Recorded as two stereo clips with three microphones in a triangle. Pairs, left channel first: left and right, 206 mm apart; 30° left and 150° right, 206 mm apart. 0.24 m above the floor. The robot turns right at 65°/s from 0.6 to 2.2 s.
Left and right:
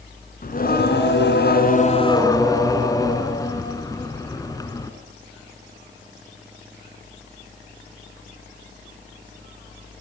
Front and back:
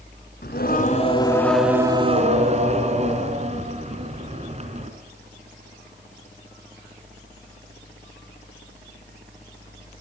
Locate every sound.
0.4 s singing: 55° left, 3.5 m; by 4.9 s 160° left, 3.5 m